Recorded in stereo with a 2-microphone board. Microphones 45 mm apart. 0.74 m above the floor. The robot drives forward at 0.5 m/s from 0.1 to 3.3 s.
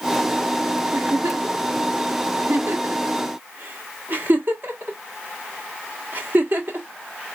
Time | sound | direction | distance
0.9 | a giggle | 45° right (ahead or behind) | 1.1 m